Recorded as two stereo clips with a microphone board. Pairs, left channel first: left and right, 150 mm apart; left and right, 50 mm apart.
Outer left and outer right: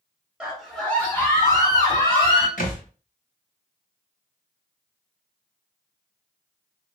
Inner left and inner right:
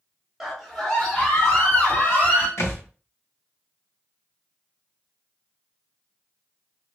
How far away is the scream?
About 0.8 m.